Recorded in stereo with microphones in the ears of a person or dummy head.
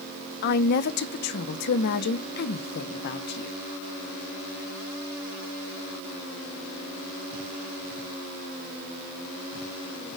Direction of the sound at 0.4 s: 60° left (ahead or behind).